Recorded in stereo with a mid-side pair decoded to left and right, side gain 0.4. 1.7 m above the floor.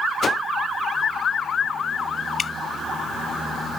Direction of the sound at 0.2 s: 45° left.